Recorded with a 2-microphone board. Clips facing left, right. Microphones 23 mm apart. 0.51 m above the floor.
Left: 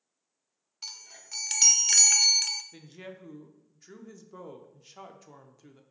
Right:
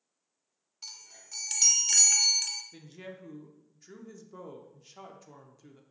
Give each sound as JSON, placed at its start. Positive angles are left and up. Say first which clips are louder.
{"t": 0.8, "sound": "a chime", "louder": "left 4 dB", "side_deg": 25, "distance_m": 0.5}
{"t": 2.7, "sound": "a woman speaking", "louder": "even", "side_deg": 10, "distance_m": 0.7}